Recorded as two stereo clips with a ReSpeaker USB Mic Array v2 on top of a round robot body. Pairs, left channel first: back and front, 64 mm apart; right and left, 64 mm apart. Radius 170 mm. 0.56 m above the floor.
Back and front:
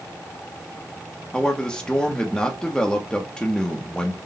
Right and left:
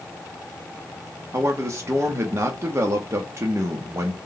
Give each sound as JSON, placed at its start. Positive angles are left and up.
{"t": 1.3, "sound": "a man speaking", "azimuth_deg": 110, "distance_m": 0.9}